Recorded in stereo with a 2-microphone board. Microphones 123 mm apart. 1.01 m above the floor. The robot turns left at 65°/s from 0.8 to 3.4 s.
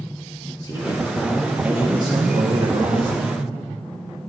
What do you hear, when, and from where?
0.6 s a man speaking: 40° left, 1.9 m; by 3.3 s 120° right, 1.9 m